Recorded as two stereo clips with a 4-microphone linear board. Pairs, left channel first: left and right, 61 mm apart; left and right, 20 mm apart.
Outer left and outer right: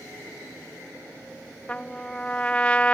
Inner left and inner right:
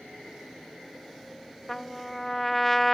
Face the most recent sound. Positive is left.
turn(degrees=20)  # may be behind; listen again after turning